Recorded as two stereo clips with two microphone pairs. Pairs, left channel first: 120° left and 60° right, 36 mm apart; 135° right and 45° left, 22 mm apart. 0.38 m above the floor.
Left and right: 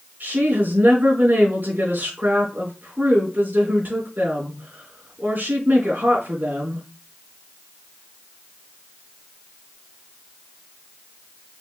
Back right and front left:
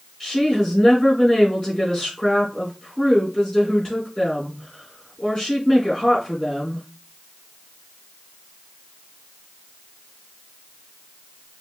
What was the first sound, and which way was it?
A woman speaking, 80° right.